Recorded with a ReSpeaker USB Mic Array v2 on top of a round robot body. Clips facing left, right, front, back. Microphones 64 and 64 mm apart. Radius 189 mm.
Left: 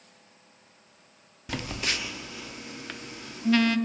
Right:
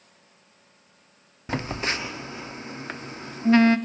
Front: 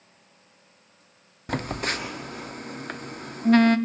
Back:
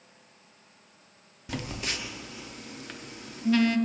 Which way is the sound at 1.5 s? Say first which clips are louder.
Right 4 dB, front 6 dB; 35° right.